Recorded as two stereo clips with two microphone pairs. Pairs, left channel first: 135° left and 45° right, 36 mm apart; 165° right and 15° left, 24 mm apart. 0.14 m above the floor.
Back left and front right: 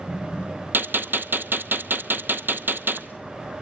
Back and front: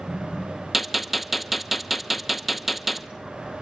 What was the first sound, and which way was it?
A gunshot, 65° right.